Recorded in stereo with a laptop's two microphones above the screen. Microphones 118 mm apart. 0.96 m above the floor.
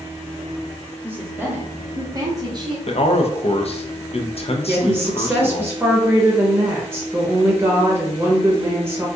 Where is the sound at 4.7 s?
20° right (ahead or behind), 0.6 m.